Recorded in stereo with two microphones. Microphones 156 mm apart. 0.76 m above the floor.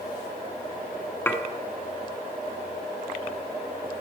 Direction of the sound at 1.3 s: 15° left (ahead or behind).